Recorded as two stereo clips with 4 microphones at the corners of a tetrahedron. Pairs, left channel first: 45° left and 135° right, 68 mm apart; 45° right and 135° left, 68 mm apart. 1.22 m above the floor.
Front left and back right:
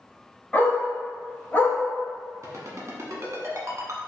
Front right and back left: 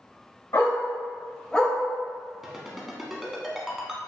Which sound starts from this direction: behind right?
A ringtone, at 2.4 s.